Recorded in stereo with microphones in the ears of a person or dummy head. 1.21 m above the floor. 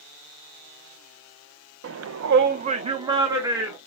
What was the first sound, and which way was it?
A shout, 70° right (ahead or behind).